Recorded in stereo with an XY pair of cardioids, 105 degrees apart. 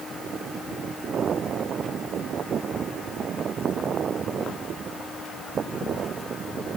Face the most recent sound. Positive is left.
No sound to turn to.